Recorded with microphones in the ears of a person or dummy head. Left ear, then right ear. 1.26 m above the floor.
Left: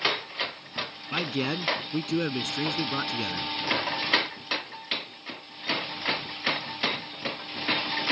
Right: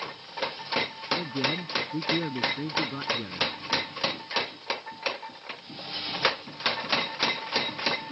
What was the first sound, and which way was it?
A man speaking, 70° left (ahead or behind).